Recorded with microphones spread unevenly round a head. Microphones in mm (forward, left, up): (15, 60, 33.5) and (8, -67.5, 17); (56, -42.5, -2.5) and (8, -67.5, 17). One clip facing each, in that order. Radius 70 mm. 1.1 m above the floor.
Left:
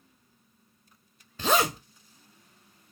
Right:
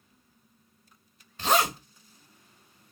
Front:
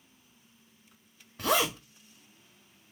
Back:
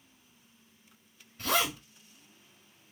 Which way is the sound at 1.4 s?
95° left.